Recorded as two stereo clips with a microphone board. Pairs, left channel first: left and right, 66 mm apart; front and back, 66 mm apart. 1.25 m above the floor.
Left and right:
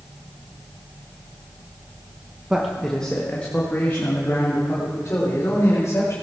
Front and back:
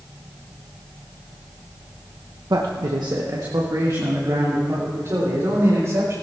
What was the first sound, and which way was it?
A man speaking, 165° right.